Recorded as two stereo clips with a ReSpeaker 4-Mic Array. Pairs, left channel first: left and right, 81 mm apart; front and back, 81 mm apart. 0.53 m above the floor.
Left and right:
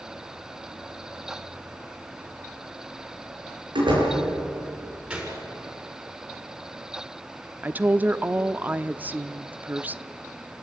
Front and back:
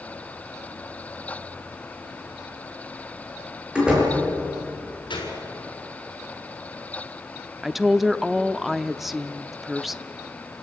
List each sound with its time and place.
3.8 s a door slam: 100° right, 9 m
5.1 s a gunshot: 15° right, 6.5 m
7.6 s a woman speaking: 95° right, 0.7 m